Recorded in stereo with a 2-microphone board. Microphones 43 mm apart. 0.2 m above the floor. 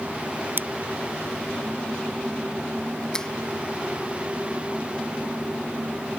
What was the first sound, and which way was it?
Scissors, 50° right (ahead or behind).